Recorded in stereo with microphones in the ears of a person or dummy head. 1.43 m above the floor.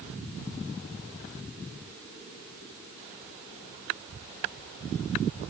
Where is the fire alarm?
No fire alarm in this recording.